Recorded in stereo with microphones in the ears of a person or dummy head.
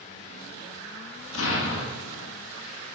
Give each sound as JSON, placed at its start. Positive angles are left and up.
{"t": 1.3, "sound": "an explosion", "side_deg": 85, "distance_m": 1.5}